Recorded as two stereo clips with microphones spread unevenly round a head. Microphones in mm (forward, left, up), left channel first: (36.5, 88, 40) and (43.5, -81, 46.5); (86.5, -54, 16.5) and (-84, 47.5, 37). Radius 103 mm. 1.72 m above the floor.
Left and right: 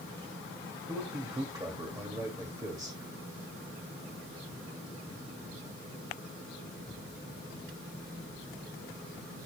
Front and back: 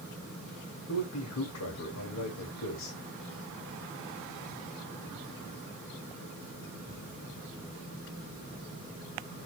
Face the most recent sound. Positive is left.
turn(degrees=-20)